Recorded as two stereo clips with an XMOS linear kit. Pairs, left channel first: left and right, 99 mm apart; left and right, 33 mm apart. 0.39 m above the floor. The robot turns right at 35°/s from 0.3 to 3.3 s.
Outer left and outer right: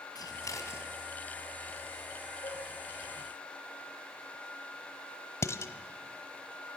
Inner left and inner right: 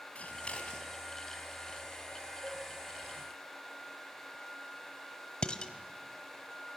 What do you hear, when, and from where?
0.1 s scissors: 40° left (ahead or behind), 3 m; by 0.9 s 20° left (ahead or behind), 3 m
2.4 s a cowbell: 65° left (ahead or behind), 6.5 m; by 2.6 s 60° left (ahead or behind), 6.5 m
5.4 s dishes clattering: 30° left (ahead or behind), 1.2 m